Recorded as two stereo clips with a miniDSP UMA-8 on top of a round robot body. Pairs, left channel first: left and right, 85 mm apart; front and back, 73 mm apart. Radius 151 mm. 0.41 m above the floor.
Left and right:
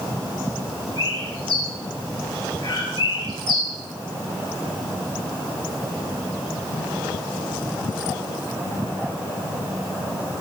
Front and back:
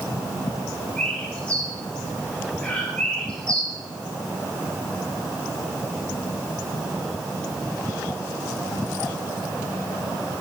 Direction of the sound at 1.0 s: 80° left.